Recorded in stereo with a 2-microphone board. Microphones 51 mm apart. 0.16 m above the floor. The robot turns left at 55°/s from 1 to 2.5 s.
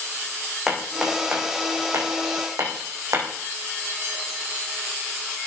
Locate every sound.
0.7 s hammering: 5° right (ahead or behind), 5 m; by 3.3 s 85° right, 5 m